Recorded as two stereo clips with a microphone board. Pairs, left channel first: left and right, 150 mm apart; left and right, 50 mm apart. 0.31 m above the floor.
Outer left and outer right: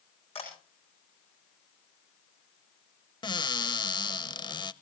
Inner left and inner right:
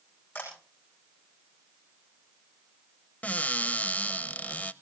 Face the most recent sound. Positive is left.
turn(degrees=30)  # may be behind; listen again after turning